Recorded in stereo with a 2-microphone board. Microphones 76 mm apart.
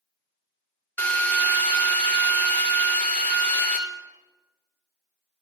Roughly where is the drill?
Left.